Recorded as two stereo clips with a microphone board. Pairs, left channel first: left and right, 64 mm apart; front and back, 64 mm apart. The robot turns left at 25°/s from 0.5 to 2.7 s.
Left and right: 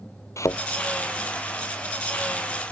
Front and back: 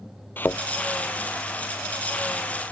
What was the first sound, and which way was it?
A thud, 55° left.